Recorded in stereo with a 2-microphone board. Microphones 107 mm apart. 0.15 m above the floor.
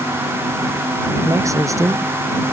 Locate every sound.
1.2 s a man speaking: 30° right (ahead or behind)